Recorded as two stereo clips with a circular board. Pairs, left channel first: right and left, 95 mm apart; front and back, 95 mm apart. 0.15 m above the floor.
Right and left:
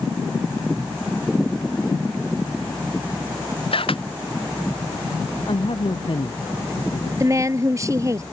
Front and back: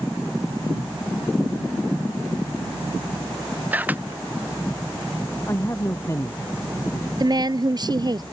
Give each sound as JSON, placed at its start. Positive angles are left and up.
{"t": 3.7, "sound": "a camera shutter", "azimuth_deg": -110}
{"t": 5.5, "sound": "a man speaking", "azimuth_deg": -65}
{"t": 7.2, "sound": "a woman speaking", "azimuth_deg": 140}